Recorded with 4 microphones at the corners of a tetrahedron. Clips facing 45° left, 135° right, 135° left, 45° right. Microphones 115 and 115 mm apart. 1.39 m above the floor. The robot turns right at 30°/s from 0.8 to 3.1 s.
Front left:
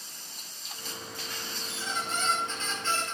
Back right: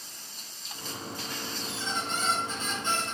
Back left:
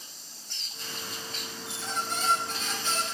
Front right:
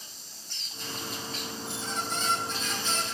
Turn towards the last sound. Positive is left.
turn(degrees=160)